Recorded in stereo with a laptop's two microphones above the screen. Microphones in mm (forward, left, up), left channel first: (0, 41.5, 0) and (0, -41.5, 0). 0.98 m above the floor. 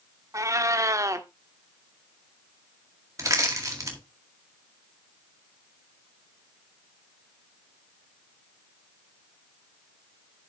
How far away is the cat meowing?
About 0.7 m.